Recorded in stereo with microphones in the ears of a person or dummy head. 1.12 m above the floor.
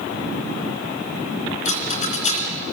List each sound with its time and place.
1.6 s a rattle: 40° left (ahead or behind), 3.5 m